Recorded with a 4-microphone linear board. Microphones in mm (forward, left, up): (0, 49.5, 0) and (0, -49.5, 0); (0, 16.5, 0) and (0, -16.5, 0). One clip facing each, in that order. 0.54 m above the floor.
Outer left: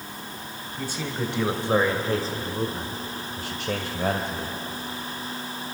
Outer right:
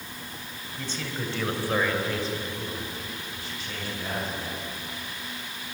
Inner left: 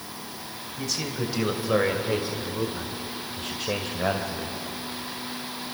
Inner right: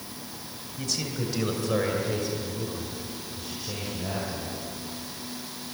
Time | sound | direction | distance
0.8 | a man speaking | 10° left (ahead or behind) | 3.5 m